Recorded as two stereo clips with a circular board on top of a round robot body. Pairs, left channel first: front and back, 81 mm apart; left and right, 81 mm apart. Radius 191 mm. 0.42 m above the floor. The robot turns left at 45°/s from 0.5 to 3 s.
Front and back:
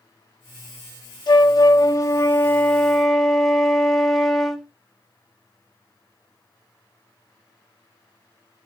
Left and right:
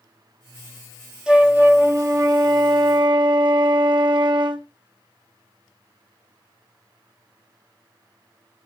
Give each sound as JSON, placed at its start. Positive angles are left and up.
{"t": 1.3, "sound": "a flute", "azimuth_deg": -10, "distance_m": 1.7}